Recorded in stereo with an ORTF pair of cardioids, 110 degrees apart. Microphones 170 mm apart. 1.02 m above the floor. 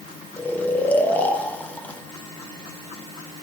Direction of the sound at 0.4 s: 10° left.